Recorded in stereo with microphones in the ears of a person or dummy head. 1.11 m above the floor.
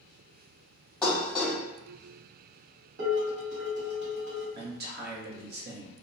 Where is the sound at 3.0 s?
65° right (ahead or behind), 1.1 m.